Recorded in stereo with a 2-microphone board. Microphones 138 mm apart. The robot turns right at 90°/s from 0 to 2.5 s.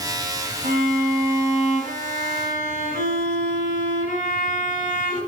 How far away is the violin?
About 3.5 m.